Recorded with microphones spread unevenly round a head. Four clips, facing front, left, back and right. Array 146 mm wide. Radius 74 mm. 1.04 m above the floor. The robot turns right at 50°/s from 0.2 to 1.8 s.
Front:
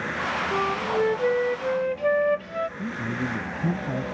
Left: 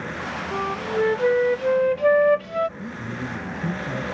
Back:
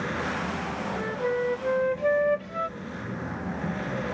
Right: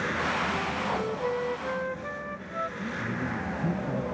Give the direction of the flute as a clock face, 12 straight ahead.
11 o'clock.